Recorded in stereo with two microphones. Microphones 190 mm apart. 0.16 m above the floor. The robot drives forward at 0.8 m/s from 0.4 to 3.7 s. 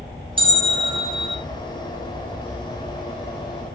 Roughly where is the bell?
Right.